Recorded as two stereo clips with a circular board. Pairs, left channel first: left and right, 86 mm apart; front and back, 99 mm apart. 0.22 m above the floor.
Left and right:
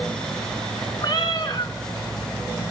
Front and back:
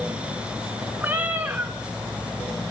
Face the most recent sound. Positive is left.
turn(degrees=110)